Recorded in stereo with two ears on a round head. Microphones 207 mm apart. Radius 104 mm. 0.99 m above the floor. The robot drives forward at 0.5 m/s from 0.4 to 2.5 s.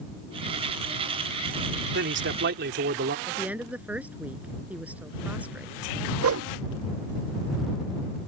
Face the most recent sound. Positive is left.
turn(degrees=-60)  # may be behind; listen again after turning